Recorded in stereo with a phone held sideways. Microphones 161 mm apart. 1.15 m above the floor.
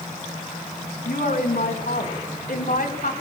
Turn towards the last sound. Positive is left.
turn(degrees=85)